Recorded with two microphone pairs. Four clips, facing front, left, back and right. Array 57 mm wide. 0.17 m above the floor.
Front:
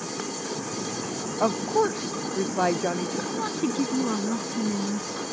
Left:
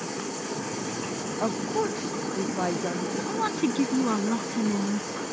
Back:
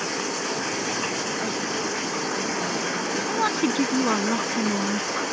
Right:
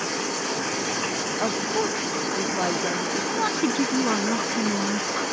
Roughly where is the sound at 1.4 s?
Ahead.